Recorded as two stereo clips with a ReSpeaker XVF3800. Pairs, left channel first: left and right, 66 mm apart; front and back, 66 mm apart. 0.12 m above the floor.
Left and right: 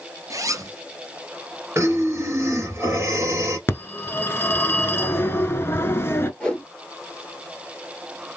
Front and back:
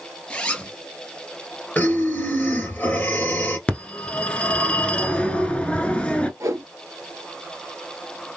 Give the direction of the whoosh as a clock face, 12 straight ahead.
7 o'clock.